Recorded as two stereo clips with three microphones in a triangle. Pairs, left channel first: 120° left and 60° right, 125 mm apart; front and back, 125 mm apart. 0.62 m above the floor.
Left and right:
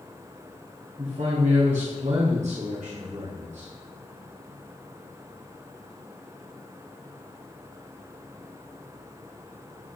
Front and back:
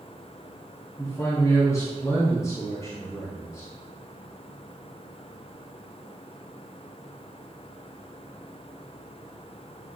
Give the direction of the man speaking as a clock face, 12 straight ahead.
2 o'clock.